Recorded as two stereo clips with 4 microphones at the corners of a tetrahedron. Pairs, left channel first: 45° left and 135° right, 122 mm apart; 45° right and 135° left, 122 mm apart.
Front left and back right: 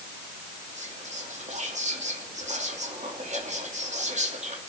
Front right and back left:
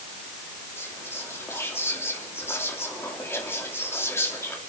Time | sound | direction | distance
0.8 | whispering | 115° right | 2.5 m